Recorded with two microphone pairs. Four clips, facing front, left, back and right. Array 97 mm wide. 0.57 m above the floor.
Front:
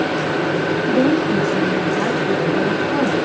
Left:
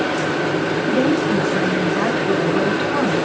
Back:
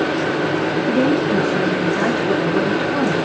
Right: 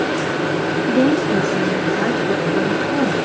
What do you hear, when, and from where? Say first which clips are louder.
0.9 s a woman speaking: right 2 dB, front 1 dB; 95° left, 2.5 m